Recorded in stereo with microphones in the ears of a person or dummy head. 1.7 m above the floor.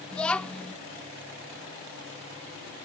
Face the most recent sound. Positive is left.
turn(degrees=5)  # may be behind; listen again after turning